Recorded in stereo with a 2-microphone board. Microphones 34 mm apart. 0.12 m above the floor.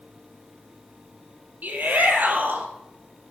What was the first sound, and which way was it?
A shout, 60° right (ahead or behind).